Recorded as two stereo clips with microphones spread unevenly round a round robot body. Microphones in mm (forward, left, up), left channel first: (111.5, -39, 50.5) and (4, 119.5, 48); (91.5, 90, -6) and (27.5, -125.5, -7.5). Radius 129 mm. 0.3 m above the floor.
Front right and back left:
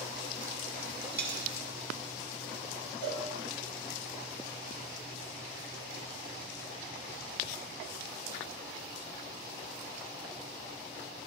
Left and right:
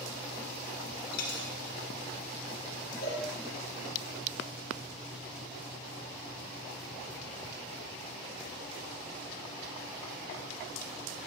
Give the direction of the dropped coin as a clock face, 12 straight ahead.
9 o'clock.